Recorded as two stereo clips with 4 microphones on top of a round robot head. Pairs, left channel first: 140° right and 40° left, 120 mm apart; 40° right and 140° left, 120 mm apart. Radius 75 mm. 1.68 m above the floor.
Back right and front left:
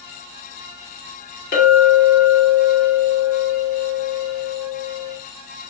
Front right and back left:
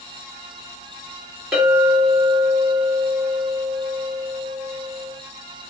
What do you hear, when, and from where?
1.5 s a clink: 135° right, 1.3 m